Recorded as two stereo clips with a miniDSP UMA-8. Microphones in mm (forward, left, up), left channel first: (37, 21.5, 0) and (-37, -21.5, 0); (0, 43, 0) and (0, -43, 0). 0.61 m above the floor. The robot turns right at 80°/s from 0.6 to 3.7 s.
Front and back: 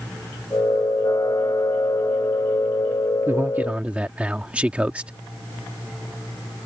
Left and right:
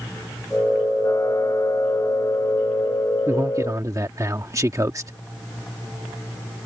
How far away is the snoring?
I don't hear snoring.